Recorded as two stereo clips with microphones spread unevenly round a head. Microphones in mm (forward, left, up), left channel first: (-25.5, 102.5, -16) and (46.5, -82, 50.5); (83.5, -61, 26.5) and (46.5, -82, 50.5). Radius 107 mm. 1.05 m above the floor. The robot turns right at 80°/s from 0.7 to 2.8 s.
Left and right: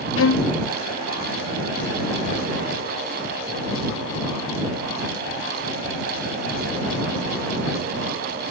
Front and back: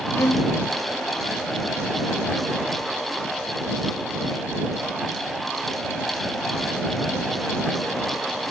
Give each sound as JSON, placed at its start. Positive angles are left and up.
{"t": 0.2, "sound": "a violin", "azimuth_deg": 85}